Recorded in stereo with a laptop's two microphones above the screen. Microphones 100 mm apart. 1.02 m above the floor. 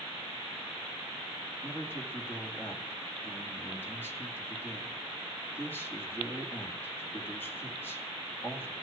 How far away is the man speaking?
About 2.5 m.